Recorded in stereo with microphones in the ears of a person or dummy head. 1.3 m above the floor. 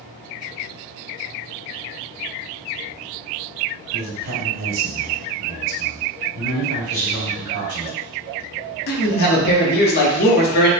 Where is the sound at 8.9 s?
50° left (ahead or behind), 0.7 m.